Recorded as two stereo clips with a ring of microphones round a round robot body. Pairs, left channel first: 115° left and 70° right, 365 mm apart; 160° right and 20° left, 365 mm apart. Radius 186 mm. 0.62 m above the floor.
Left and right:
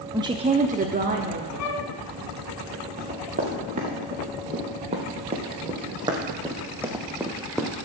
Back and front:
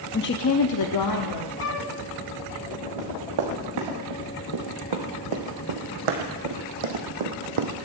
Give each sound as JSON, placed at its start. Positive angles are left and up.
{"t": 0.1, "sound": "a woman speaking", "azimuth_deg": -135, "distance_m": 0.6}
{"t": 1.6, "sound": "a flute", "azimuth_deg": 150, "distance_m": 1.1}
{"t": 3.0, "sound": "running footsteps", "azimuth_deg": 0, "distance_m": 4.0}